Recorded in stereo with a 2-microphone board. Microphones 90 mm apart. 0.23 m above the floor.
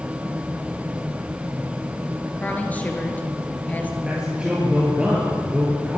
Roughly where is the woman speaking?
Centre.